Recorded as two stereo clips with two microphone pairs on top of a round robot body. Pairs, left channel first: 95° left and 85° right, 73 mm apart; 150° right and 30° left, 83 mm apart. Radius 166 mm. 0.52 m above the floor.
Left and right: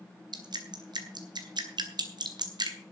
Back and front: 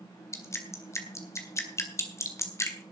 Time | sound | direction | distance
0.3 | dripping | 95° right | 2 m